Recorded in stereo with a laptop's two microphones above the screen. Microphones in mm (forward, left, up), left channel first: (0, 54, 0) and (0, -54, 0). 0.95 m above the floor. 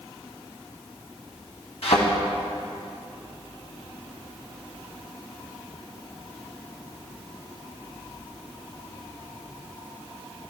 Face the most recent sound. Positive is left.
turn(degrees=75)  # may be behind; listen again after turning